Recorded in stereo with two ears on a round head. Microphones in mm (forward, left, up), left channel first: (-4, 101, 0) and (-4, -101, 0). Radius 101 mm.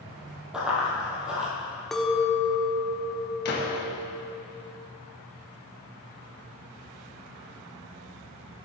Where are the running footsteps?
5° right (ahead or behind), 1.9 m.